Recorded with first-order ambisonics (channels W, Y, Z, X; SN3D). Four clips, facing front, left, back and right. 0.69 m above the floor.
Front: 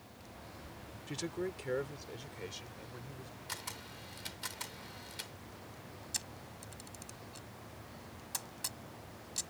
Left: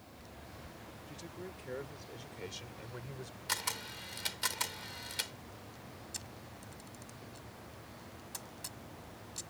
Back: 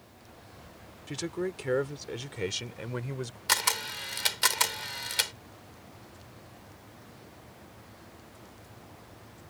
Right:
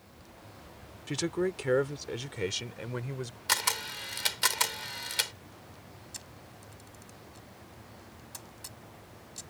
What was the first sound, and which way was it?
A man speaking, 105° right.